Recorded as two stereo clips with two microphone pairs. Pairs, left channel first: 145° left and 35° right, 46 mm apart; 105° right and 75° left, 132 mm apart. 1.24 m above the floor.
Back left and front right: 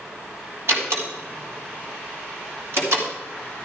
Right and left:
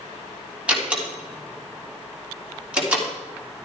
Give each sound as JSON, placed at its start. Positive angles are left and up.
{"t": 0.7, "sound": "a door slam", "azimuth_deg": -5, "distance_m": 3.0}